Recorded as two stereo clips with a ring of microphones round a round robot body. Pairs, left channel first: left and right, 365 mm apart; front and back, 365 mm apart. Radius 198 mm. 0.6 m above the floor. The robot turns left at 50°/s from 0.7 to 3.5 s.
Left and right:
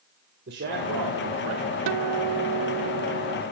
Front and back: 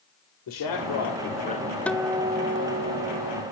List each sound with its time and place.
0.5 s a man speaking: 25° right, 2.5 m; by 1.8 s 80° right, 2.5 m
1.9 s a guitar: 85° right, 0.8 m; by 3.4 s 165° right, 0.8 m